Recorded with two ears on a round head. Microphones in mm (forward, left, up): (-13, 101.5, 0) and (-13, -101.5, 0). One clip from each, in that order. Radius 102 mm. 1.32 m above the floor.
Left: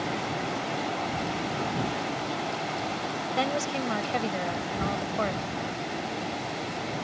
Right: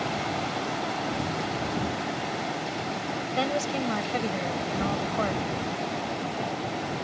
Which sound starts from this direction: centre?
A woman speaking, at 3.4 s.